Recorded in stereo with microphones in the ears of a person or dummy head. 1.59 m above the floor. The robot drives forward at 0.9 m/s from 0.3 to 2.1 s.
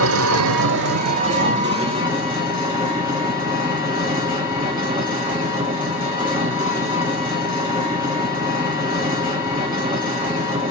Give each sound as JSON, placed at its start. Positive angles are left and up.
{"t": 0.0, "sound": "an engine running", "side_deg": -75, "distance_m": 0.7}